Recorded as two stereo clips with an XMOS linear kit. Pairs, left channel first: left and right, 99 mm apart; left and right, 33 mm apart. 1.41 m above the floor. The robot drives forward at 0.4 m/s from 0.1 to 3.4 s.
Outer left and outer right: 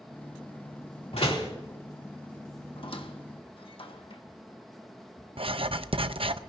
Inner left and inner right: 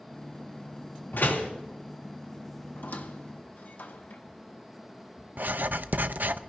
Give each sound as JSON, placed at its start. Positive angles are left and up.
{"t": 1.1, "sound": "a door slam", "side_deg": 80, "distance_m": 3.0}
{"t": 2.8, "sound": "a squeak", "side_deg": 60, "distance_m": 1.3}
{"t": 5.4, "sound": "writing", "side_deg": -65, "distance_m": 0.7}